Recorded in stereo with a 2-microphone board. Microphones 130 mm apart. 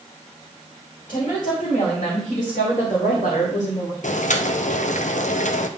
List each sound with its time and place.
1.1 s a woman speaking: 85° left, 2.5 m; by 3.9 s 70° left (ahead or behind), 1.1 m
4.0 s boiling: 75° left (ahead or behind), 0.5 m